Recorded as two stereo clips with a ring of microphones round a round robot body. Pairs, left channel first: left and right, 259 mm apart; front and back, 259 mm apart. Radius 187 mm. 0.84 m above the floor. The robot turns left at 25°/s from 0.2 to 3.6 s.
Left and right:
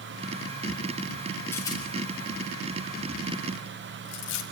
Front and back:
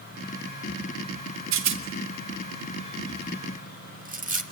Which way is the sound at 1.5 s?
175° left.